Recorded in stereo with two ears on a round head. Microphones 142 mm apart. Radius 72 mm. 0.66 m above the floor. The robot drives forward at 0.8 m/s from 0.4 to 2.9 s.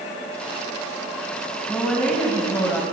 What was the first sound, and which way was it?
A woman speaking, 5° left (ahead or behind).